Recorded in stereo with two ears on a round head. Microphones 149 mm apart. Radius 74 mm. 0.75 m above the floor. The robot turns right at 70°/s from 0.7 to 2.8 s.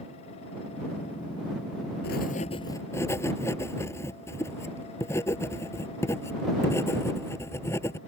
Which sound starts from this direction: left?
Writing, at 2.0 s.